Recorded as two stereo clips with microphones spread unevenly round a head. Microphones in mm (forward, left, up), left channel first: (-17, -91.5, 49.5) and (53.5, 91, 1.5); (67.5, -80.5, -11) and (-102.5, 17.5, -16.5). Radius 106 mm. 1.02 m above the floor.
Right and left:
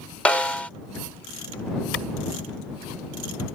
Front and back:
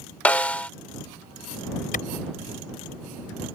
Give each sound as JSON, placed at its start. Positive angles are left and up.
{"t": 0.2, "sound": "a snare drum", "azimuth_deg": -95}
{"t": 1.9, "sound": "a clap", "azimuth_deg": -80}